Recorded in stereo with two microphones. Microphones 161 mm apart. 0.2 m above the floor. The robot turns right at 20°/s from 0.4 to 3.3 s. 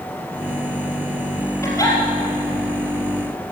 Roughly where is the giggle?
Centre.